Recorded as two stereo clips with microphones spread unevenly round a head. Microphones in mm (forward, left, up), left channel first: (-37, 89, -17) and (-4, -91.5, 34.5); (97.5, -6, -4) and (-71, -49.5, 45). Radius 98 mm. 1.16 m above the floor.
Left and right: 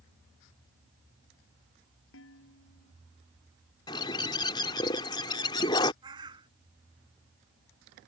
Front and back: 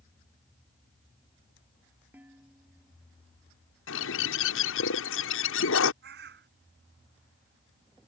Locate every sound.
2.1 s dishes clattering: 115° left
3.9 s a bird: 30° left
6.0 s a bird: 145° right